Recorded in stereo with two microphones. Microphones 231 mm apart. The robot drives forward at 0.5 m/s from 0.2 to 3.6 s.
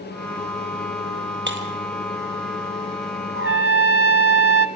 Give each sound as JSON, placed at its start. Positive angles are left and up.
{"t": 1.5, "sound": "breaking glass", "side_deg": -55, "distance_m": 2.0}
{"t": 3.4, "sound": "a trumpet", "side_deg": -65, "distance_m": 0.8}